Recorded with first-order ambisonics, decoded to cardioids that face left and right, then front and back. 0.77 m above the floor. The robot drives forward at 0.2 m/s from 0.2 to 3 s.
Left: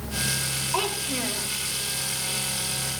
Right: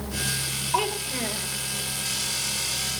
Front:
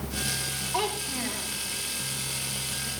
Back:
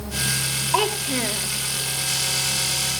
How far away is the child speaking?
About 1.3 m.